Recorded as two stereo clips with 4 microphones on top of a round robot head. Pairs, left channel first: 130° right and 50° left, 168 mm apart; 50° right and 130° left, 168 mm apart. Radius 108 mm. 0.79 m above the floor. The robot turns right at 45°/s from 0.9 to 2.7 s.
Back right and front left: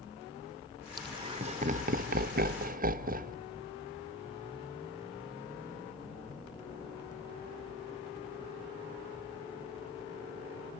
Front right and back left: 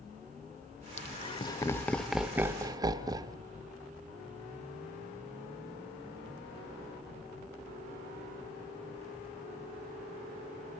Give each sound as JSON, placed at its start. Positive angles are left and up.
{"t": 1.0, "sound": "laughter", "azimuth_deg": -15, "distance_m": 1.0}